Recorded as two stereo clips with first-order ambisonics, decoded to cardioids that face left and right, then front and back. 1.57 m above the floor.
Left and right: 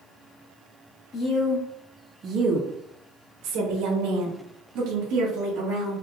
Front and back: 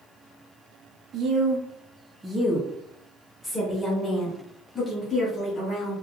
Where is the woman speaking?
130° left, 0.7 m; by 5.9 s 70° right, 2.5 m.